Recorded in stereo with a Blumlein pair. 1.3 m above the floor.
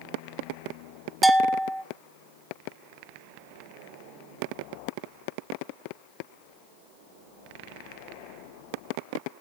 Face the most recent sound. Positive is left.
turn(degrees=0)